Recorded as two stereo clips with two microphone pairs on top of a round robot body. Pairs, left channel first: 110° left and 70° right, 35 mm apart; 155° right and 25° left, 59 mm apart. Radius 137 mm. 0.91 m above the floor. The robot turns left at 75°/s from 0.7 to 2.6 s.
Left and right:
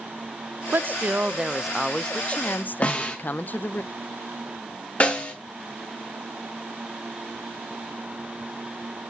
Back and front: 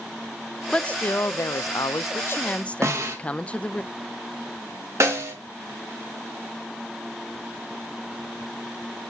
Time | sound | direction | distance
0.7 | a woman speaking | 80° right | 0.5 m
2.8 | a snare drum | 60° left | 2 m
5.0 | a snare drum | 60° left | 2.5 m